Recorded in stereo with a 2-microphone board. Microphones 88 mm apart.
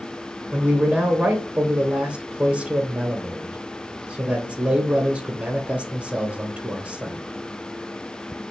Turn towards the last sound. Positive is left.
turn(degrees=-15)  # may be behind; listen again after turning